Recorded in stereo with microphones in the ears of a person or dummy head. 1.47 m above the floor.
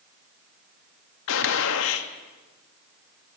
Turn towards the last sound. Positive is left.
turn(degrees=70)  # may be behind; listen again after turning